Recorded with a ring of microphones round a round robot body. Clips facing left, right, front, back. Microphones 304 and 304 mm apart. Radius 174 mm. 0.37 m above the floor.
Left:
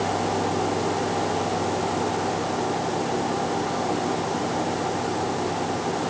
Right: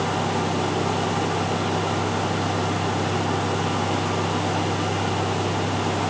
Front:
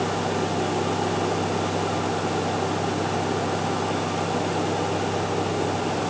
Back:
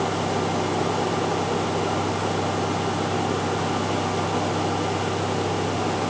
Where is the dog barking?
I don't hear a dog barking.